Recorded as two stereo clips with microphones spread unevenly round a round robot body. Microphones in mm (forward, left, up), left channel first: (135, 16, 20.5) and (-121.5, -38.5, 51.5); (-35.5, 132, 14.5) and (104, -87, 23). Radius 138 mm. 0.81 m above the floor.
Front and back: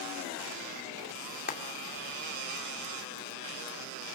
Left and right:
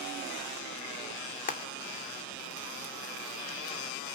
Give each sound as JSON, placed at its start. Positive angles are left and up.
{"t": 1.5, "sound": "frying", "azimuth_deg": 65, "distance_m": 2.5}